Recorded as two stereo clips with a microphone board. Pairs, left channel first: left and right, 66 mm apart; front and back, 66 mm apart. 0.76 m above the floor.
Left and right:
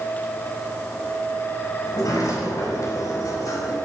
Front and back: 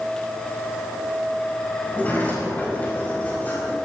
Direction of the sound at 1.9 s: 65° left.